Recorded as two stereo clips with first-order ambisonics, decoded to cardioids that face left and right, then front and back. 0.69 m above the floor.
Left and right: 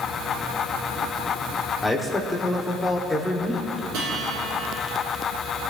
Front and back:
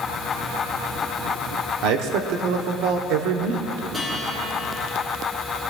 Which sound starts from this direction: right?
A guitar, at 3.9 s.